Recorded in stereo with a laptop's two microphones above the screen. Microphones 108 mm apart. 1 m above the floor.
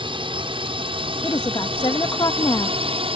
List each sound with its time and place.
0.0 s a drone: 50° right (ahead or behind); by 3.2 s 60° right (ahead or behind)
1.2 s a woman speaking: 40° left (ahead or behind)